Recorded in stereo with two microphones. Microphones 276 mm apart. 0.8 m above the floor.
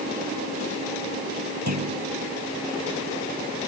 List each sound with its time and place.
1.7 s a clunk: 70° right (ahead or behind)